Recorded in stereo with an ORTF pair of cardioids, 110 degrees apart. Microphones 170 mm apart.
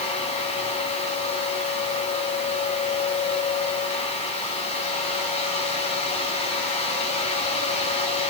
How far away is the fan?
About 7.5 m.